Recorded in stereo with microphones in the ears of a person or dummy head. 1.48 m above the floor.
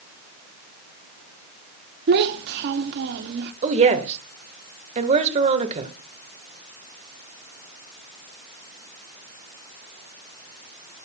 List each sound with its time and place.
2.1 s a child speaking: 55° right (ahead or behind), 0.9 m
3.6 s a woman speaking: 35° right (ahead or behind), 1.5 m